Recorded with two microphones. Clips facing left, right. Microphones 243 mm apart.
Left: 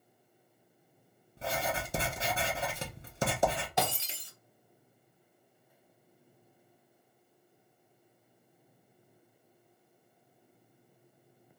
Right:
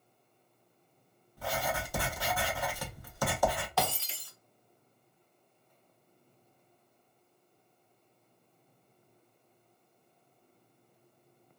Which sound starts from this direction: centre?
Breaking glass, at 3.8 s.